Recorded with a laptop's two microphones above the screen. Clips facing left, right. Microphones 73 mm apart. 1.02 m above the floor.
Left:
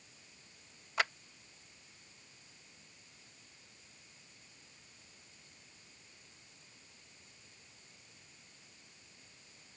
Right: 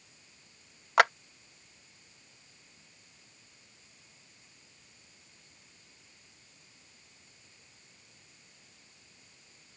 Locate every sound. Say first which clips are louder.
1.0 s a clap: right 12 dB; 70° right (ahead or behind)